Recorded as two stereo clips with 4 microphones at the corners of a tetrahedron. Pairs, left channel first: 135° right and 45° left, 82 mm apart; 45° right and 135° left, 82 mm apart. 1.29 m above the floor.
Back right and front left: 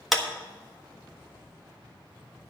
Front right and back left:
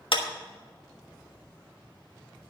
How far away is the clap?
About 1.3 m.